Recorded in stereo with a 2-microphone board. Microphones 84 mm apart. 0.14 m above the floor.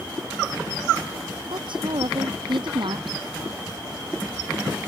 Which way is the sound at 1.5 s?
70° right (ahead or behind).